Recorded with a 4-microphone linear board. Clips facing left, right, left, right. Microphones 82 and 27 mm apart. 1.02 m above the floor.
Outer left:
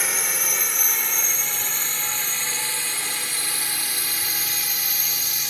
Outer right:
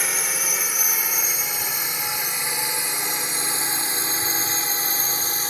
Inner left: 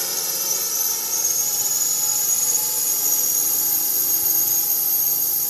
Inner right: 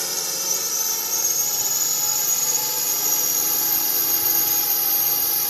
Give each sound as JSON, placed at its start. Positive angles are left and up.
{"t": 0.0, "sound": "a drone", "side_deg": 0}